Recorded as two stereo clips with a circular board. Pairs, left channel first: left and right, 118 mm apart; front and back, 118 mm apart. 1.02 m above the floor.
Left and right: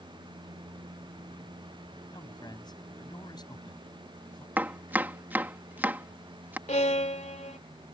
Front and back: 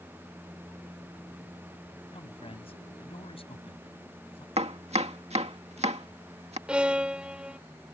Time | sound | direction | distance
2.1 | a man speaking | 35° left | ?
4.6 | chopping | 165° right | ?
6.7 | a violin | 100° left | ?